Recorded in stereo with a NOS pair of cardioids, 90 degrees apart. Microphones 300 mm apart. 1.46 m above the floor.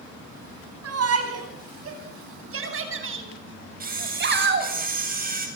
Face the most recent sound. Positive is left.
turn(degrees=-30)